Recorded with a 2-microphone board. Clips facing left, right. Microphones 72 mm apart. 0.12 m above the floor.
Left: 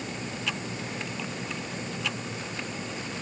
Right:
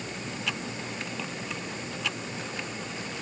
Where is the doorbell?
No doorbell in this recording.